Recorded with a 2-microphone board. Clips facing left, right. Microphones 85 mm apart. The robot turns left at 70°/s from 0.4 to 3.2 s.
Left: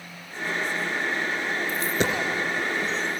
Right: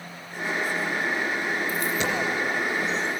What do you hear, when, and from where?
1.7 s a dropped coin: 15° left (ahead or behind), 2.5 m; by 2.2 s 50° left (ahead or behind), 2.5 m